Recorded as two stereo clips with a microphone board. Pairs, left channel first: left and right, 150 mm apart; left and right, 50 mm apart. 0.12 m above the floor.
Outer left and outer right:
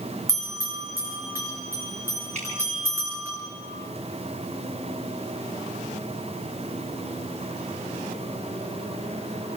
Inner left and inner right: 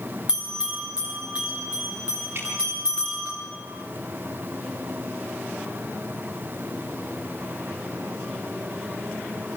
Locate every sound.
0.3 s a bell: 20° right (ahead or behind), 6.5 m
2.4 s dripping: 50° right (ahead or behind), 8 m